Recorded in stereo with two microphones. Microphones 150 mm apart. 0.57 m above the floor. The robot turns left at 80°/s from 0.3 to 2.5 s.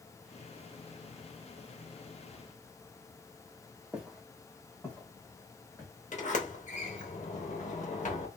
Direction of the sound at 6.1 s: 55° left (ahead or behind).